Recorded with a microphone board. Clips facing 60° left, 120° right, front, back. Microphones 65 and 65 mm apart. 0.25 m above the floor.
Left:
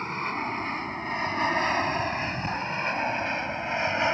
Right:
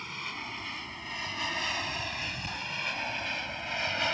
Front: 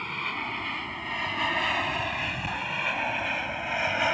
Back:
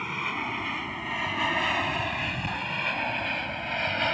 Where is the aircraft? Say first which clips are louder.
Left 9 dB, back 1 dB; 100° left; by 4.1 s 65° left.